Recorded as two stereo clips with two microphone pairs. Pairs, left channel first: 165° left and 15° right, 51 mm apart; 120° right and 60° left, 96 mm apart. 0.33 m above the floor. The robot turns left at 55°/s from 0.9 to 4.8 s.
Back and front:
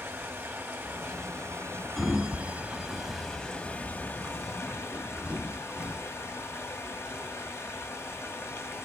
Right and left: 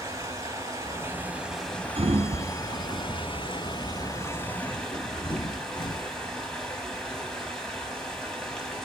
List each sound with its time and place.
0.0 s running water: 15° left, 2.5 m; by 8.9 s 160° left, 2.5 m
2.0 s a sliding door: 75° left, 0.8 m; by 6.1 s 85° right, 0.8 m